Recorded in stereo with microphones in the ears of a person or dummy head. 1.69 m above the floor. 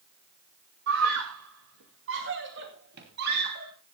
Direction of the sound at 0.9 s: 70° right (ahead or behind).